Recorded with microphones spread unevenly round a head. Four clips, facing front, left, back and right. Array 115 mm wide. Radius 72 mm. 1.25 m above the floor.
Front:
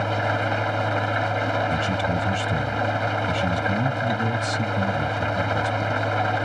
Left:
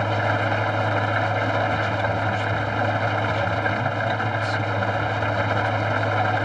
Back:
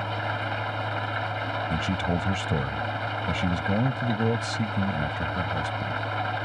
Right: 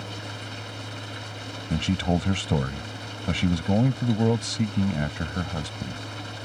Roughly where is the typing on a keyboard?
I don't hear typing on a keyboard.